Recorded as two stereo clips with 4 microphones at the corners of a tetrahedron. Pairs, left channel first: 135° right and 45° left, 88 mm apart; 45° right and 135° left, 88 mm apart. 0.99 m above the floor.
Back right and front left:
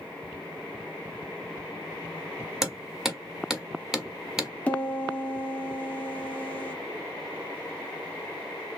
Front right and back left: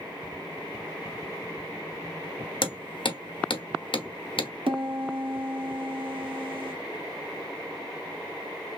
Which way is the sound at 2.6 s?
40° right.